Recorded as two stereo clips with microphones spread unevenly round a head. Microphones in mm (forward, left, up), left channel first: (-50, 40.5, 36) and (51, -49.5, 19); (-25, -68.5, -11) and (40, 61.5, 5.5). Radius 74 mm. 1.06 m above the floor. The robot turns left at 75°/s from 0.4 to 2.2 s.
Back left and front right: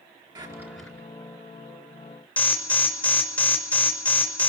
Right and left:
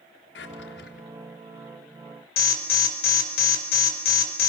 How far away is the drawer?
About 3.5 m.